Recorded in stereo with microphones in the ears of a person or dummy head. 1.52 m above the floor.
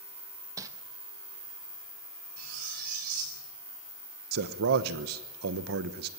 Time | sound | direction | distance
0.6 | crumpling | 20° right (ahead or behind) | 1.1 m
2.4 | cutlery clinking | 55° right (ahead or behind) | 9 m
4.3 | a man speaking | 70° right (ahead or behind) | 1.1 m